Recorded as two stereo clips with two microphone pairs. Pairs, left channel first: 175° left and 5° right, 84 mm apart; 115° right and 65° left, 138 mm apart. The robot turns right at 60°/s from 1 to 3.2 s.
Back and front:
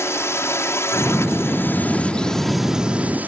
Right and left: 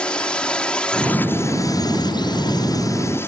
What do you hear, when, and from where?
0.0 s a drone: 170° left; by 3.3 s 55° right